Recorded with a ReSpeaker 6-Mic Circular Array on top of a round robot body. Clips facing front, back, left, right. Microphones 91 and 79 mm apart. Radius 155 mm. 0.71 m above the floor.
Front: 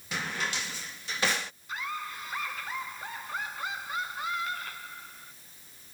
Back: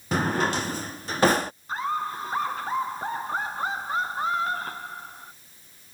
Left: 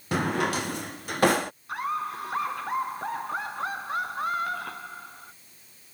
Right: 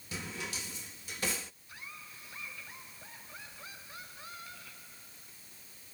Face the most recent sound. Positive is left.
turn(degrees=125)